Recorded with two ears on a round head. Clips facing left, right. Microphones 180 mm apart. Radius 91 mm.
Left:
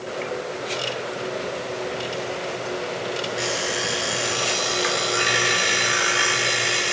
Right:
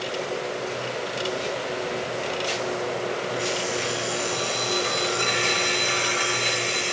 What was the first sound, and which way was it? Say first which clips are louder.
An alarm clock: even; 80° left.